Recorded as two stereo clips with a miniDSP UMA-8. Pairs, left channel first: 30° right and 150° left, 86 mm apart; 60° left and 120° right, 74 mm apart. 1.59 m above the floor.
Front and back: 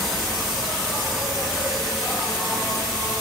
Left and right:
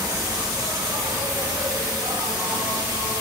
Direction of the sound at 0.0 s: 120° right.